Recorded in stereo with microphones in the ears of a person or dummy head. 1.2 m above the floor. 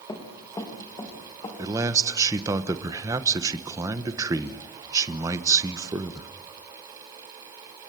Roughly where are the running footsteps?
Centre.